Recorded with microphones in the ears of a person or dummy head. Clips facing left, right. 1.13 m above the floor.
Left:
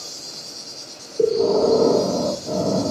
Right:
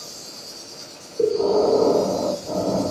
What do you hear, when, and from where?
0.0 s an insect: 35° left (ahead or behind), 2 m
1.2 s breathing: 15° left (ahead or behind), 1.2 m